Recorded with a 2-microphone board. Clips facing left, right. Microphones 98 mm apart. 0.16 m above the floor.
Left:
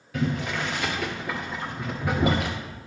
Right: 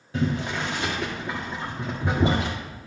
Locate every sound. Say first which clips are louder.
0.1 s boiling: right 1 dB; 30° right (ahead or behind), 1.4 m